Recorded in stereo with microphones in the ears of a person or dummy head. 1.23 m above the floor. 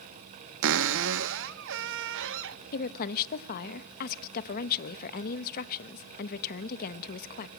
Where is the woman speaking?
50° left (ahead or behind), 1.3 m.